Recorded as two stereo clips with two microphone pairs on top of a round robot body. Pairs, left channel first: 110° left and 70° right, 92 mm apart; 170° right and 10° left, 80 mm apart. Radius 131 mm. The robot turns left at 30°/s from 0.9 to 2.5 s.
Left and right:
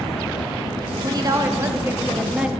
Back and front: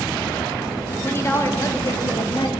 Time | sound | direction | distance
1.0 | a woman speaking | 110° right | 1.2 m